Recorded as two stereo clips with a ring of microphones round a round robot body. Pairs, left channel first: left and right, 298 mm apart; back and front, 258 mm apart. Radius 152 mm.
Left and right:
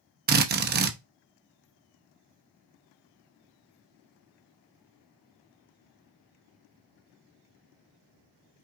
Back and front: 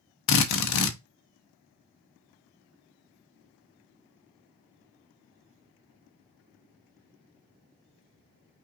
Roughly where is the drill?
Behind right.